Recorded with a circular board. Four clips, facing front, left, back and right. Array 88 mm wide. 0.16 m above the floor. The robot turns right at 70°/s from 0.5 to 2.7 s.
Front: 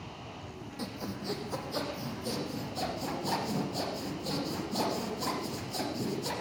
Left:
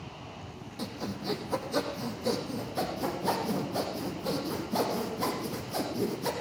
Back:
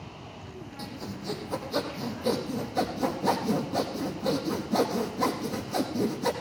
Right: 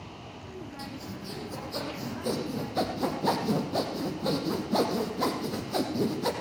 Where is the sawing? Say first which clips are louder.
Left 3 dB, even; 95° left, 5.5 m; by 6.3 s 130° right, 5.5 m.